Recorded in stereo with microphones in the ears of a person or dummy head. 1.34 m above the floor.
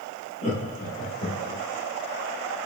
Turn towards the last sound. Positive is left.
turn(degrees=35)  # may be behind; listen again after turning